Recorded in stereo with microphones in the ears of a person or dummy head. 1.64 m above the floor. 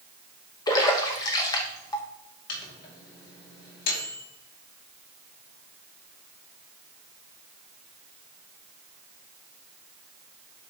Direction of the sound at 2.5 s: 55° left (ahead or behind).